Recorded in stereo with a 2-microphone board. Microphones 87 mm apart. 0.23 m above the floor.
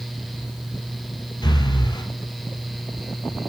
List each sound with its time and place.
1.4 s breathing: 55° left (ahead or behind), 1.9 m